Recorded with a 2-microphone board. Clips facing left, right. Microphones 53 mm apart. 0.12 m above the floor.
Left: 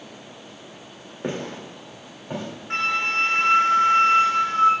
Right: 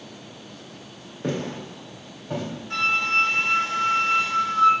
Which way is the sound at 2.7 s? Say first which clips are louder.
Right 1 dB; 45° left (ahead or behind).